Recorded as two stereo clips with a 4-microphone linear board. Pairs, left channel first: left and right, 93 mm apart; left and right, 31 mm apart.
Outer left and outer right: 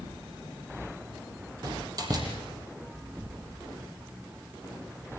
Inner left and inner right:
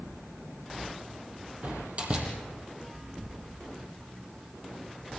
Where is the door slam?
45° right (ahead or behind), 5.5 m.